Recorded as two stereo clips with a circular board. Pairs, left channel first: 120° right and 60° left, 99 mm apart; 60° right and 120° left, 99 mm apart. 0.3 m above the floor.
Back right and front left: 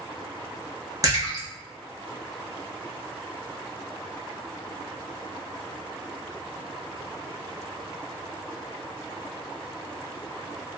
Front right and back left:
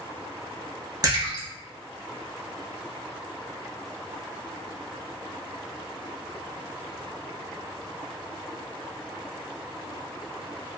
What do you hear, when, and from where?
1.0 s a splash: 95° left, 1.0 m